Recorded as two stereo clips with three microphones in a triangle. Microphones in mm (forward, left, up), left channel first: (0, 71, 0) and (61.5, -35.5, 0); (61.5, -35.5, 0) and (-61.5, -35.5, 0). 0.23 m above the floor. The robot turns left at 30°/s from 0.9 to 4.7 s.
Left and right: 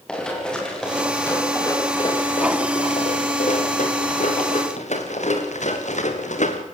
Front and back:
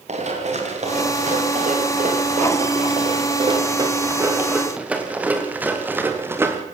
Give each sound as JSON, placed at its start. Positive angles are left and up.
{"t": 0.1, "sound": "running footsteps", "azimuth_deg": -155, "distance_m": 8.5}